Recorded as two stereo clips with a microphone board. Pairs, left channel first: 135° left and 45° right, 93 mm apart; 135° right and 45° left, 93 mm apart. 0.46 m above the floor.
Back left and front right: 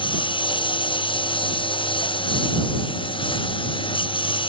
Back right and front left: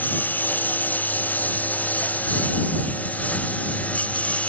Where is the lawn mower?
155° left; by 4.5 s 150° left.